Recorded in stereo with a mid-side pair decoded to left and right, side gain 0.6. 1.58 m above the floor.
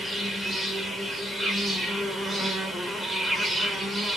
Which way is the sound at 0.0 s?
5° right.